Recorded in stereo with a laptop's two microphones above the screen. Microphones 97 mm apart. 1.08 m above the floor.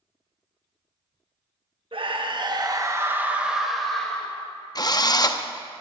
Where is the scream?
65° right (ahead or behind), 1.5 m; by 4.4 s 15° left (ahead or behind), 1.9 m.